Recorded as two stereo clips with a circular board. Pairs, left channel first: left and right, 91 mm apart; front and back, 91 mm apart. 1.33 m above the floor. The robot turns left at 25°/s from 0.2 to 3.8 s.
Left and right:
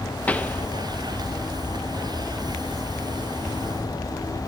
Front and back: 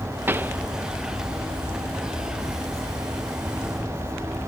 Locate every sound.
0.3 s a pop: 145° left, 0.5 m; by 0.6 s 140° left, 0.5 m